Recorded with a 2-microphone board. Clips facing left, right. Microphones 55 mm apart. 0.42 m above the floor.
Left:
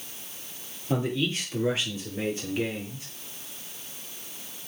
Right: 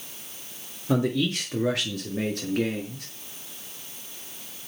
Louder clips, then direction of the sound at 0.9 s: Right 3 dB; 70° right (ahead or behind).